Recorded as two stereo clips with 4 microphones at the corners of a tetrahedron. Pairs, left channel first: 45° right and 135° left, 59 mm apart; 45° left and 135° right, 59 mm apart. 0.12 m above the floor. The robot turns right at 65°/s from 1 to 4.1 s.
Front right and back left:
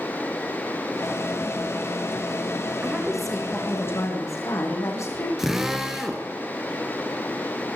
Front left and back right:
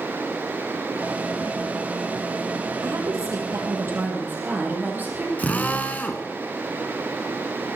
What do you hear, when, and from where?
2.8 s a woman speaking: 160° right, 4 m; by 5.3 s 75° right, 4 m
5.4 s a drill: 60° left, 1.7 m